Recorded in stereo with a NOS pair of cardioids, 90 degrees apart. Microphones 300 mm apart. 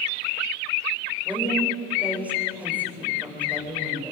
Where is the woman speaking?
5° right, 9 m.